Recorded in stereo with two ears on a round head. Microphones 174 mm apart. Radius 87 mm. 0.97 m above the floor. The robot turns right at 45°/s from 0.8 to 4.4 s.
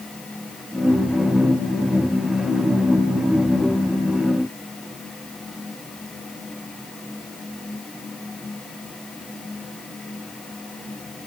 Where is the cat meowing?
No cat meowing in this recording.